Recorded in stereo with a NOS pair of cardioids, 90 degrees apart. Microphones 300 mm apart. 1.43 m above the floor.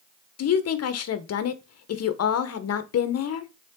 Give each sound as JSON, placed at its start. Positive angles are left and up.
{"t": 0.4, "sound": "a woman speaking", "azimuth_deg": 55, "distance_m": 1.2}